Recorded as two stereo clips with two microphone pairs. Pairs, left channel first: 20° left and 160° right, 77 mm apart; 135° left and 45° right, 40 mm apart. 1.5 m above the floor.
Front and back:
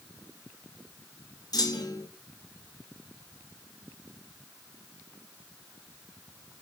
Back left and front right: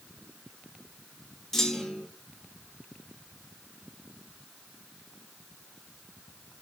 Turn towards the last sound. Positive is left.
turn(degrees=55)